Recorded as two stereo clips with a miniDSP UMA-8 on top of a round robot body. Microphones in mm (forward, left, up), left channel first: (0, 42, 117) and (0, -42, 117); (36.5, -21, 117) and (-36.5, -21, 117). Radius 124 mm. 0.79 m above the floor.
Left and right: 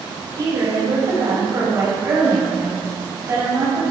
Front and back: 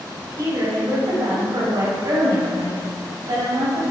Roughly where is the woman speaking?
Behind right.